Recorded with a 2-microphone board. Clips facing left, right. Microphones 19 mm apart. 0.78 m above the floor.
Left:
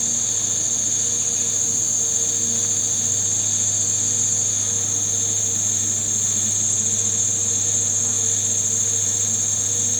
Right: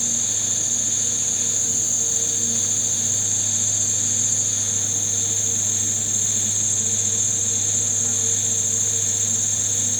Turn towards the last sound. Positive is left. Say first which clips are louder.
# even
turn(degrees=5)  # may be behind; listen again after turning